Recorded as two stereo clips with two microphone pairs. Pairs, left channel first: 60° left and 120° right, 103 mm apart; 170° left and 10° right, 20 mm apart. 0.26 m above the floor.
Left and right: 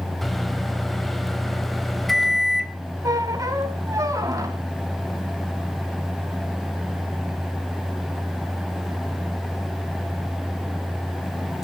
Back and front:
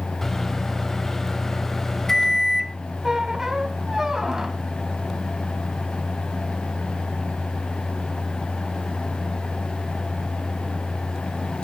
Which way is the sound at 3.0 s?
80° right.